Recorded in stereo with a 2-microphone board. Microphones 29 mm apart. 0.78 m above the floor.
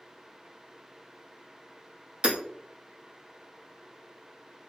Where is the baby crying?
No baby crying in this recording.